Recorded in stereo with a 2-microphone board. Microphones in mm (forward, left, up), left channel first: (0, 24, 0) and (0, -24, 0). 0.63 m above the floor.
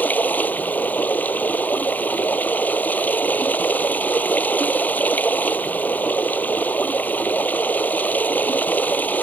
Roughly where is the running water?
Left.